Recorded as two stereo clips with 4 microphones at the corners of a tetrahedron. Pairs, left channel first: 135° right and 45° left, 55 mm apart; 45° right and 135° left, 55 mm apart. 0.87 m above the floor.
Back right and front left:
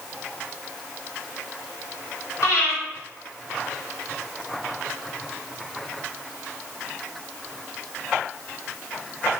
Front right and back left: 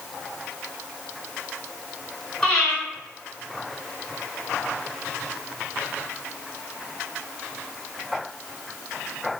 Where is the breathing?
120° right, 1.5 m.